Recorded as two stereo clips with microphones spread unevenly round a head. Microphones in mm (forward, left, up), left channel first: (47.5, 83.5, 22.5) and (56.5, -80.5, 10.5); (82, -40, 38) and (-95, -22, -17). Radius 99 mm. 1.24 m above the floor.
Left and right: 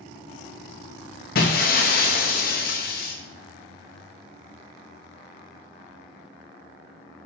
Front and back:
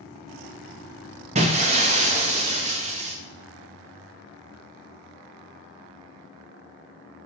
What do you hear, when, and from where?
1.4 s breaking glass: 110° left, 0.7 m